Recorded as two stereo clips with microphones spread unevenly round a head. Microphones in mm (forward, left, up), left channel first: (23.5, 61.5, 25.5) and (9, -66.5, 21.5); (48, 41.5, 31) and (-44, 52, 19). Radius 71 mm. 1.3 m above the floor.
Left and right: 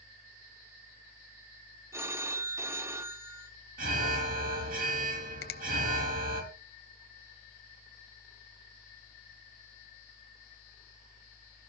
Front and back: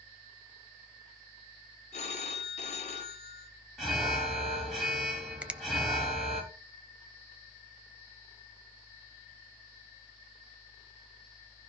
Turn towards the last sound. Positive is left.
turn(degrees=95)